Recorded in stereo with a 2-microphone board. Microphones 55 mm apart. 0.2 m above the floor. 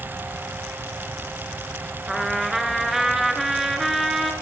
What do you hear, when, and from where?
2.1 s a trumpet: 5° right (ahead or behind), 1.3 m